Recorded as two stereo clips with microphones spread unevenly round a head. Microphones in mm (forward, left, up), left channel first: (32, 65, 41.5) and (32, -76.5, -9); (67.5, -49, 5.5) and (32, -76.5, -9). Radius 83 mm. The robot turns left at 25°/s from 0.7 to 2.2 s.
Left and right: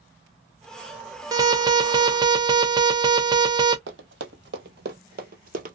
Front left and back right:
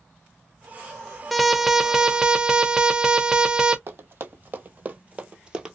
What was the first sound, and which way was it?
An alarm, 70° right.